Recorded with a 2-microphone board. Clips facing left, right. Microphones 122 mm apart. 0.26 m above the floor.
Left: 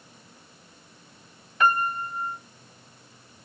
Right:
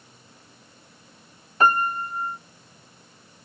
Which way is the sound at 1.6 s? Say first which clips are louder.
Right 2 dB; 35° right (ahead or behind).